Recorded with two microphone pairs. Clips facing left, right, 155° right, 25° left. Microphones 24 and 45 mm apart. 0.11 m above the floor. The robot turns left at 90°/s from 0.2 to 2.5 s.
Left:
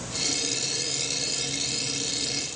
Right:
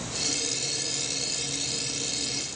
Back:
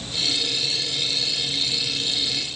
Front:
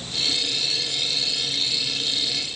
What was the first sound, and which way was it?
Only background noise.